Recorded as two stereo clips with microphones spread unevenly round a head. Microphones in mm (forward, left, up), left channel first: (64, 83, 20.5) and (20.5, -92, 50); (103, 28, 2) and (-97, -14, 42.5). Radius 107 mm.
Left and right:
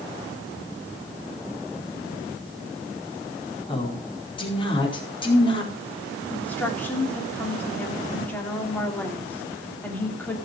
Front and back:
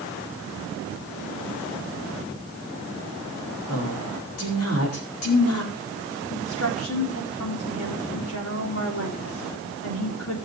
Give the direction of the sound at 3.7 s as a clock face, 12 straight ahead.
12 o'clock.